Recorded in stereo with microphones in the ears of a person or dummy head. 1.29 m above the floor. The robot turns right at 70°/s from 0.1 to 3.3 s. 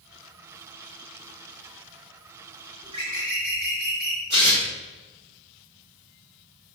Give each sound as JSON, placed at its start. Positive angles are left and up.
{"t": 2.8, "sound": "a bird", "azimuth_deg": -150, "distance_m": 4.5}
{"t": 4.3, "sound": "tearing paper", "side_deg": -50, "distance_m": 3.0}